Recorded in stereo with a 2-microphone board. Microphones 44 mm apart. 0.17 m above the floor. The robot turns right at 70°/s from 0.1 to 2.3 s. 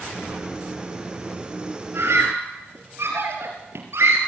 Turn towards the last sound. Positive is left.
turn(degrees=-70)  # may be behind; listen again after turning